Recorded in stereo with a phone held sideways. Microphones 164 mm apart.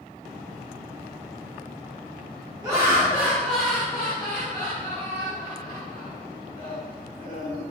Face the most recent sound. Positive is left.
turn(degrees=70)  # may be behind; listen again after turning